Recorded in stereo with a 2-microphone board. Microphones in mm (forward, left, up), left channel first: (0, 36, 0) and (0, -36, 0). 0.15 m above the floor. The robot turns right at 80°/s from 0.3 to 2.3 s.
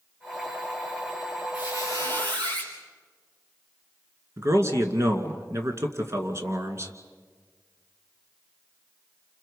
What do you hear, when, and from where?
1.5 s a squeak: 155° right, 4 m; by 2.7 s 95° right, 4 m
4.4 s a man speaking: 40° right (ahead or behind), 2 m